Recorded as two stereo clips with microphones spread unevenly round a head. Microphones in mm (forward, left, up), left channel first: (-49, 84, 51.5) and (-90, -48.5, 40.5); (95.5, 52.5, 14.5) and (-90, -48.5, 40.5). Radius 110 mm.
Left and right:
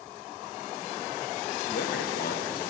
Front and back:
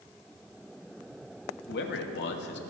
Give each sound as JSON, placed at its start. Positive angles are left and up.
{"t": 1.7, "sound": "a man speaking", "azimuth_deg": 70, "distance_m": 1.6}